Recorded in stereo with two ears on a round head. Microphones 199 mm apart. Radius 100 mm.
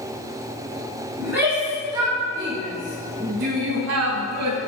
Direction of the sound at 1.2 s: 10° right (ahead or behind).